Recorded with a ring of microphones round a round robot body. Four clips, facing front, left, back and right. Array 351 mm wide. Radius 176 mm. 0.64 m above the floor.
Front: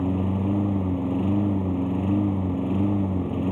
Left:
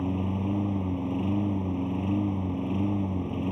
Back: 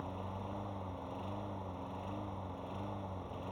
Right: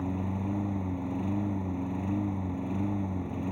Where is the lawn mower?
10° left.